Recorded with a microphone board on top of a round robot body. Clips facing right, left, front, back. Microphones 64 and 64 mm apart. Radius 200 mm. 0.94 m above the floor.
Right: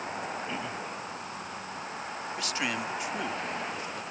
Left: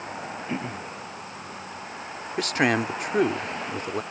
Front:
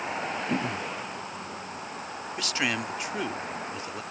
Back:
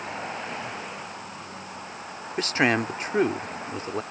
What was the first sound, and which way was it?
Throat clearing, 30° left.